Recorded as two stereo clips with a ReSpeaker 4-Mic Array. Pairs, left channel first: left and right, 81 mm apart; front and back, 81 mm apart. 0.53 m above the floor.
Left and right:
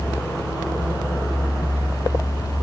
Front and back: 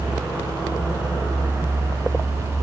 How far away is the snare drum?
I don't hear a snare drum.